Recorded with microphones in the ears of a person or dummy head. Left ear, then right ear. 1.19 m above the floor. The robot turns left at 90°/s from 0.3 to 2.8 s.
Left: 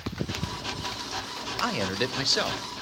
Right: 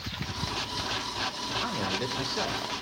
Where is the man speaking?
115° left, 0.6 m; by 2.6 s 25° left, 0.6 m.